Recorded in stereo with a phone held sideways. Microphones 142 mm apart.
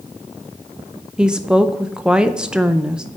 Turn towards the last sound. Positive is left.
turn(degrees=-5)  # may be behind; listen again after turning